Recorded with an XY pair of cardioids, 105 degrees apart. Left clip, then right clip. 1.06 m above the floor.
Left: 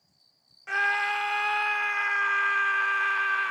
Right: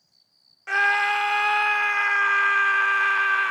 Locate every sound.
0.7 s a scream: 30° right